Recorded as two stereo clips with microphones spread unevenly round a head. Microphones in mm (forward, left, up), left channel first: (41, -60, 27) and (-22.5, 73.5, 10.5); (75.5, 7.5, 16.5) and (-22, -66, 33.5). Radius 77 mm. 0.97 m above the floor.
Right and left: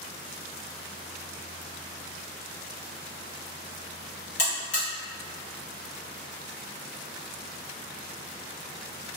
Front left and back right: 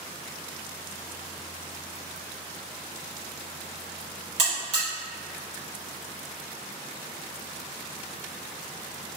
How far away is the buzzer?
About 1.4 m.